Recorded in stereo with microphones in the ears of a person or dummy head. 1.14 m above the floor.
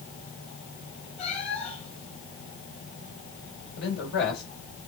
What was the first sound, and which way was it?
A cat meowing, 35° left (ahead or behind).